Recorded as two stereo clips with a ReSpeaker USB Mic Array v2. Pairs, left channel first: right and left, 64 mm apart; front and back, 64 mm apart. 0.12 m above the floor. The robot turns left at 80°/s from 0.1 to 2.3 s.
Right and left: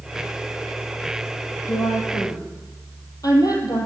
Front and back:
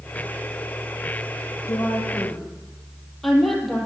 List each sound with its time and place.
1.7 s a woman speaking: 40° right, 3.5 m; by 3.9 s 90° right, 3.5 m